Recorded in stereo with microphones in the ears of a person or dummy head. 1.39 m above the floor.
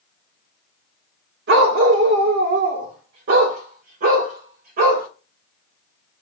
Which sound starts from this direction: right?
A dog barking, at 1.5 s.